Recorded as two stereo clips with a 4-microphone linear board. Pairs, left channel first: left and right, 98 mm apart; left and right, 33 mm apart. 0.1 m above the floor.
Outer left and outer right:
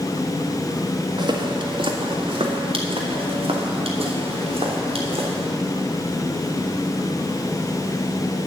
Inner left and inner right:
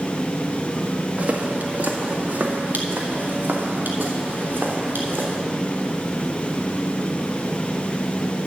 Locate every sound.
1.2 s footsteps: 50° right (ahead or behind), 1.7 m; by 5.4 s 90° right, 3.5 m